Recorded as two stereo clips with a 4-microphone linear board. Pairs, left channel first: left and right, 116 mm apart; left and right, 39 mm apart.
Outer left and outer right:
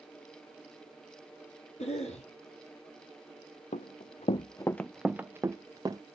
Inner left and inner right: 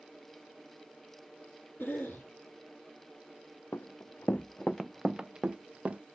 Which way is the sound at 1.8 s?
75° left (ahead or behind).